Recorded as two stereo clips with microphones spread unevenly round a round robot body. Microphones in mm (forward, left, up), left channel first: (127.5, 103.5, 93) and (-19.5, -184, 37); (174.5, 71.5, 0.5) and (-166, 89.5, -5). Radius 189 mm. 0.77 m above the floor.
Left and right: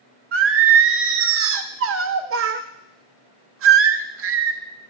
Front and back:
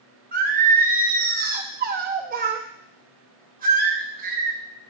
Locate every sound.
0.3 s singing: 125° right, 0.7 m